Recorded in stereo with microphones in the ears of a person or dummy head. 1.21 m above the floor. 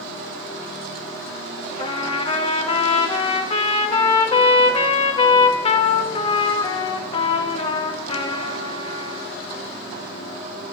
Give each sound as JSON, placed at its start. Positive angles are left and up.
{"t": 1.8, "sound": "a trumpet", "side_deg": 30, "distance_m": 1.6}